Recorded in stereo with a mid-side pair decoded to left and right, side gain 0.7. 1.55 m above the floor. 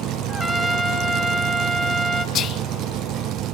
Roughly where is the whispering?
Ahead left.